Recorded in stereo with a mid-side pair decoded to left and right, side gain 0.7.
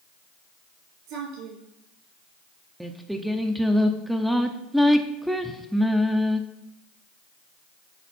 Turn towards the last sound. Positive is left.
turn(degrees=-5)